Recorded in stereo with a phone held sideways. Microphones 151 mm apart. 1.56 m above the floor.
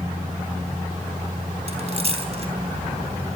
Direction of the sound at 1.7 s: 45° right (ahead or behind).